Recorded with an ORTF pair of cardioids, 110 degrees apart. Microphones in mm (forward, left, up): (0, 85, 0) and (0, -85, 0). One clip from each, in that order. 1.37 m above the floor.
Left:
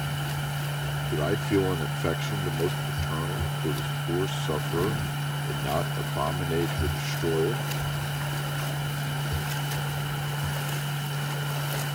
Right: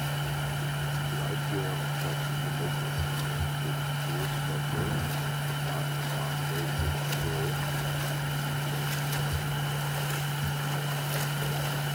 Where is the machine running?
5° left.